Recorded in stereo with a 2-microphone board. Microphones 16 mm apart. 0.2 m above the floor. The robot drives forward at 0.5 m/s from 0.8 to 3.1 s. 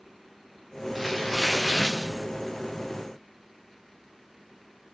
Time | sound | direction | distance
0.9 | tearing paper | 15° right (ahead or behind) | 7 m